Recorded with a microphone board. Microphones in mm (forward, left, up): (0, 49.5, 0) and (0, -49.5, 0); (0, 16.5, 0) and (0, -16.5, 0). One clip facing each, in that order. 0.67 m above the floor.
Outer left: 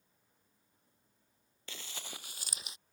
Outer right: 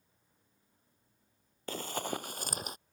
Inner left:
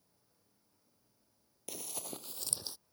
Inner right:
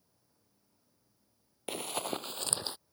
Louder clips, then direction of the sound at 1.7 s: Outer right 13 dB, inner right 10 dB; 45° right (ahead or behind).